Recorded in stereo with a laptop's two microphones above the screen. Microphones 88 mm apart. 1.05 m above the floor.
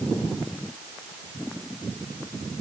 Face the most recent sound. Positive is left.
No sound to turn to.